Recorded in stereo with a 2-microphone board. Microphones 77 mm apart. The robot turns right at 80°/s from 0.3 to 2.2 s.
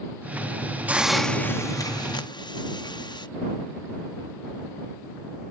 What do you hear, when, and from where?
0.9 s a hiss: 20° right; by 3.3 s 85° left